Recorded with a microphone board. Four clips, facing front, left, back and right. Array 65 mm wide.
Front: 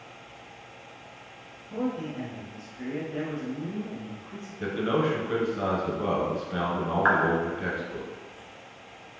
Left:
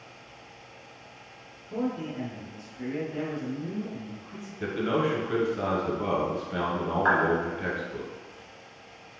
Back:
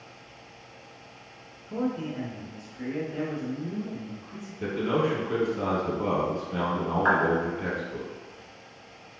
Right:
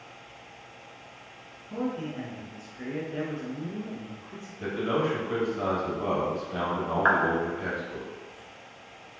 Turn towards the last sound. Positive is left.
turn(degrees=-50)